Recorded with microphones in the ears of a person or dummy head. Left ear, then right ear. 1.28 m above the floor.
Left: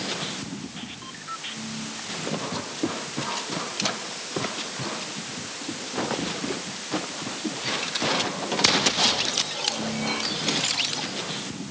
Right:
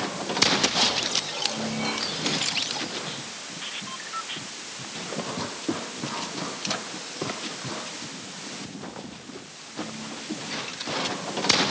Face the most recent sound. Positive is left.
No sound to turn to.